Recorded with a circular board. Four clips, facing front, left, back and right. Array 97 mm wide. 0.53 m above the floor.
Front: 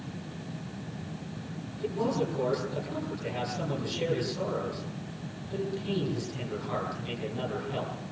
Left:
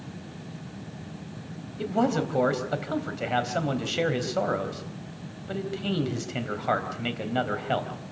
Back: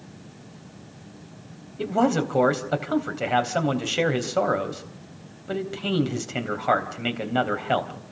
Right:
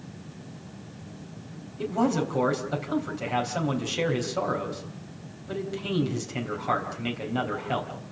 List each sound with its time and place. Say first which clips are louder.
1.8 s a man speaking: even, back 7 dB; 165° left, 3.5 m